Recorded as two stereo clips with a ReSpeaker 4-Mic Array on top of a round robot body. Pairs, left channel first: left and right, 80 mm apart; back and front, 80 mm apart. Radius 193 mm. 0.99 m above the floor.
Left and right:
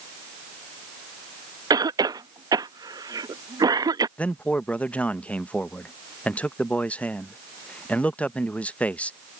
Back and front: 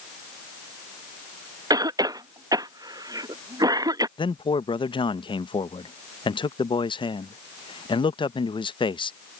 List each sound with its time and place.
1.7 s a cough: 45° right
4.2 s a man speaking: 165° left